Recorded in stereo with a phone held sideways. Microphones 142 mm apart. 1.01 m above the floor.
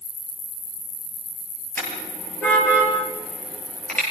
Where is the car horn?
10° left (ahead or behind), 8.5 m; by 4.0 s 5° left (ahead or behind), 9.5 m.